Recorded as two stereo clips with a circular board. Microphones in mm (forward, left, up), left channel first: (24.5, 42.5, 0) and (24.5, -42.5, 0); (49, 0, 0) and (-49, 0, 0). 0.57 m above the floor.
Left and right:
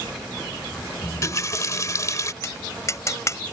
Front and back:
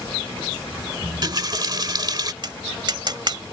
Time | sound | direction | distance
1.0 | a running tap | 135° left | ?
2.4 | tapping | 140° left | ?